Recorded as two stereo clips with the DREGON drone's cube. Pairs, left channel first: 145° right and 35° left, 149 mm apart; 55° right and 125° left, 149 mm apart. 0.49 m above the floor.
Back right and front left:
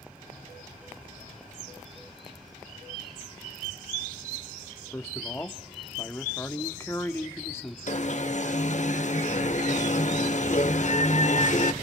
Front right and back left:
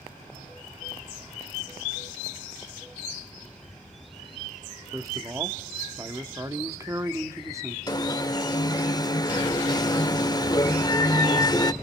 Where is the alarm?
115° right, 0.9 m.